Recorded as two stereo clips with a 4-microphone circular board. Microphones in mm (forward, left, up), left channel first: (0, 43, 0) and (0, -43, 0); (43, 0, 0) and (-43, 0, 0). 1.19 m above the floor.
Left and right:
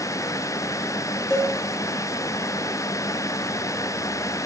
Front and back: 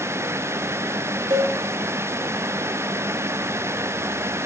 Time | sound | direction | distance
1.3 | a cowbell | 145° left | 3 m